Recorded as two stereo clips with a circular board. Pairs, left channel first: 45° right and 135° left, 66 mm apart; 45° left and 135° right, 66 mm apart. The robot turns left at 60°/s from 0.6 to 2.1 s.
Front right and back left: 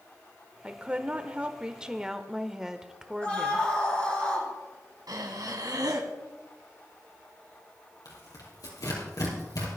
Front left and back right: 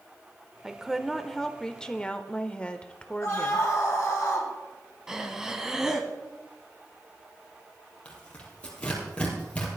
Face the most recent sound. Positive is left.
turn(degrees=-25)